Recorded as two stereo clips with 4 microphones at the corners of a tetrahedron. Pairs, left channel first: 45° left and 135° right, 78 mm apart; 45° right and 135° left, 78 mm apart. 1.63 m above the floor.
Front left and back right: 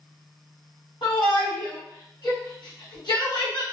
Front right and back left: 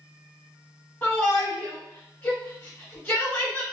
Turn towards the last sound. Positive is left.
turn(degrees=15)